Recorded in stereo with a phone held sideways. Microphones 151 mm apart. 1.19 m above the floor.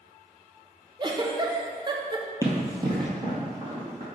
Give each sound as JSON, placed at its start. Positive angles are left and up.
{"t": 1.0, "sound": "a giggle", "side_deg": -30, "distance_m": 0.6}
{"t": 2.4, "sound": "running footsteps", "side_deg": -20, "distance_m": 1.4}